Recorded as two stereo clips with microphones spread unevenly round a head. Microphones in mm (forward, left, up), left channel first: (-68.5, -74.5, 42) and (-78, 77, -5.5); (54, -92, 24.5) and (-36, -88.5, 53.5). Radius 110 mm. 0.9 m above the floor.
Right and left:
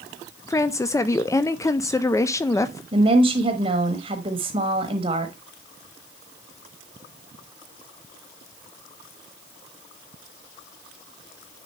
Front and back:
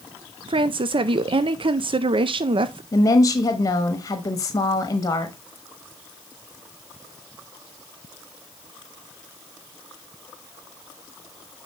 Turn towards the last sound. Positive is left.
turn(degrees=45)